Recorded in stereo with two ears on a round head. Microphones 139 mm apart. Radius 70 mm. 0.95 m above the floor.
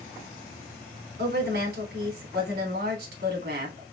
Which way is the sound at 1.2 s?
75° right (ahead or behind).